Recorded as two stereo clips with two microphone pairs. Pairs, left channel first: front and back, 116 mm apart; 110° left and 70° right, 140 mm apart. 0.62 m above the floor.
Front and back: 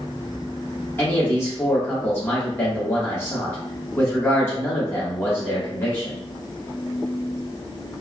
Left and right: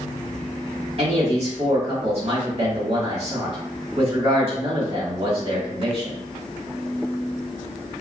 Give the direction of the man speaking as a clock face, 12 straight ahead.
2 o'clock.